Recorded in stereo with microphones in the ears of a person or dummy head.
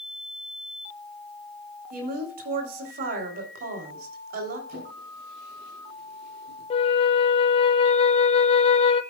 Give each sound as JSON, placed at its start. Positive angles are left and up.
{"t": 1.9, "sound": "a woman speaking", "side_deg": -50, "distance_m": 3.5}
{"t": 4.7, "sound": "a drawer", "side_deg": -45, "distance_m": 7.0}
{"t": 6.7, "sound": "a flute", "side_deg": 30, "distance_m": 0.6}